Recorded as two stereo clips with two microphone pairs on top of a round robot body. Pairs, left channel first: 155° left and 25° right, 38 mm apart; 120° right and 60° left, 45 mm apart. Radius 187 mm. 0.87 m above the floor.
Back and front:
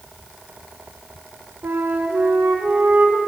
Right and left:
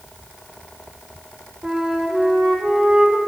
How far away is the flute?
About 0.9 m.